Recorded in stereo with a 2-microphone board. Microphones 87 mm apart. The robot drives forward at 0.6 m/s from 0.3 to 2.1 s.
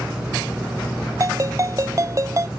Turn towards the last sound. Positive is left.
turn(degrees=-35)  # may be behind; listen again after turning